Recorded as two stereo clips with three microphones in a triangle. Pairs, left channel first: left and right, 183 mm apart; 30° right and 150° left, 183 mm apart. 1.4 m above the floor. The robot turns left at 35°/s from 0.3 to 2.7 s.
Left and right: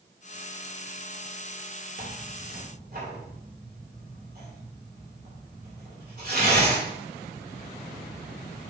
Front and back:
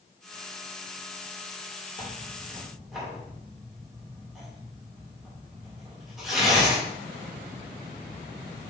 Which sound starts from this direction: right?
Tearing paper, at 2.0 s.